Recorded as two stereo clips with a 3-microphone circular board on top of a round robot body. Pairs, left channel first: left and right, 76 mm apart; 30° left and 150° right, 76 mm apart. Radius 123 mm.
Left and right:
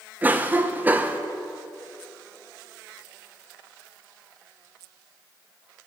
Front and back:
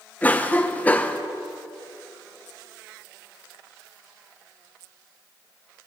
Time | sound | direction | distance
0.2 | a cough | 30° right | 0.7 m